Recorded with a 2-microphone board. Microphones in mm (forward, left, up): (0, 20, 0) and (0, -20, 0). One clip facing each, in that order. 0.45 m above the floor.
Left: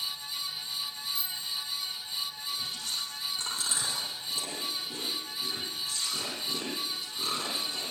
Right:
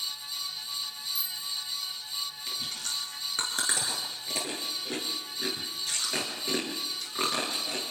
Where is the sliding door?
I don't hear a sliding door.